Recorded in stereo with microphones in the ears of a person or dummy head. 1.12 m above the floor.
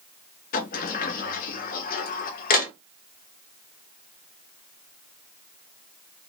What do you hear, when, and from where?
0.5 s a sliding door: 45° left (ahead or behind), 0.8 m